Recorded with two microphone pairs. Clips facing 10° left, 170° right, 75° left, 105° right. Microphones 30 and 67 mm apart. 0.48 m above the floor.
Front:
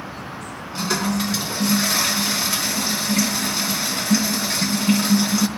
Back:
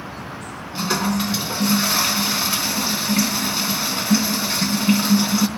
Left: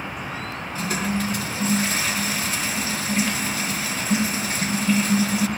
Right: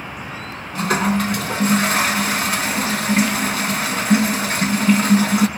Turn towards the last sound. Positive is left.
turn(degrees=-95)